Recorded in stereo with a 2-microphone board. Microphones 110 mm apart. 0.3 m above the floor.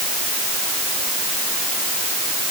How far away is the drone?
I don't hear a drone.